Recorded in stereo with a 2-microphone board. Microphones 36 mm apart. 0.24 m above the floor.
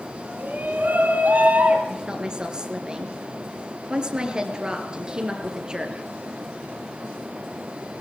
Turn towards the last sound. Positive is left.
turn(degrees=-20)  # may be behind; listen again after turning